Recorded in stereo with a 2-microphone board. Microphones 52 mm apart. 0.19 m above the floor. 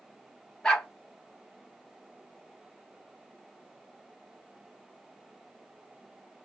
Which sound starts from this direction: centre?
A dog barking, at 0.6 s.